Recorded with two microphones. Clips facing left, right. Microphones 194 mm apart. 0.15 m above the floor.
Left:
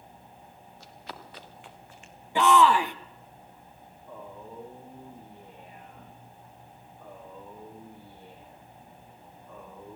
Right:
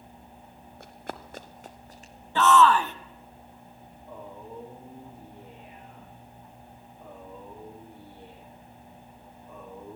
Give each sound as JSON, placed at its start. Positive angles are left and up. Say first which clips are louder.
{"t": 0.8, "sound": "running footsteps", "louder": "right 6 dB", "side_deg": -55, "distance_m": 2.0}
{"t": 2.4, "sound": "a shout", "louder": "right 1 dB", "side_deg": 15, "distance_m": 1.1}
{"t": 4.1, "sound": "a man speaking", "louder": "right 1 dB", "side_deg": -25, "distance_m": 7.5}